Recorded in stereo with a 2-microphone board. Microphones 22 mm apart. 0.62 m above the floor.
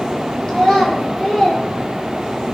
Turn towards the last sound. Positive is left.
turn(degrees=35)  # may be behind; listen again after turning